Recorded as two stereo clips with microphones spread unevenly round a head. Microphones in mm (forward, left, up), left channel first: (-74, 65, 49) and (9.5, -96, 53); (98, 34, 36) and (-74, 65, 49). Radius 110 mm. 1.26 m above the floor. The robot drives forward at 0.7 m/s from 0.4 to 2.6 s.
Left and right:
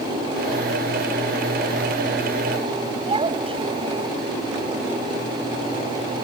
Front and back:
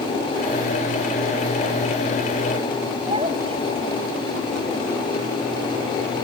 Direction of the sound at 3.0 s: 125° right.